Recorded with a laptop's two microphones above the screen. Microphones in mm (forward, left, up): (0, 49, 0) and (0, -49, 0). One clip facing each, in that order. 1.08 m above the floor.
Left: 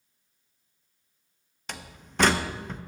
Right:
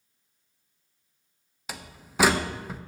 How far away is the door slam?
About 0.8 m.